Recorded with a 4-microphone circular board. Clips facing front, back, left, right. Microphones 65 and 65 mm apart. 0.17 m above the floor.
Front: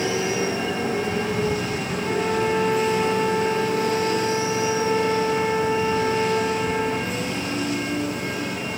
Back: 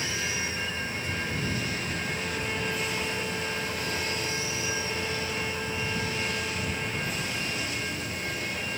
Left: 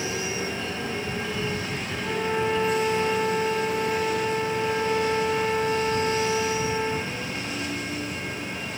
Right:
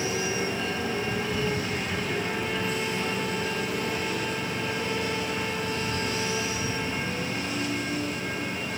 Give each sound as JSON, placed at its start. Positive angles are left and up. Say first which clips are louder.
{"t": 0.0, "sound": "a motorcycle", "louder": "front 9 dB, right 1 dB", "azimuth_deg": -5}
{"t": 2.0, "sound": "a violin", "louder": "front 10 dB, left 4 dB", "azimuth_deg": 35}